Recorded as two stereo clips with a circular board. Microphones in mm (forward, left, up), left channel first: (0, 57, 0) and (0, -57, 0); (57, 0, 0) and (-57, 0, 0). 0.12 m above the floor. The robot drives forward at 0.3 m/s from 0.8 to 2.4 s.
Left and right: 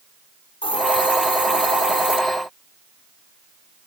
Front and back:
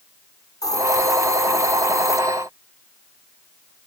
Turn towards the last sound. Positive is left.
turn(degrees=65)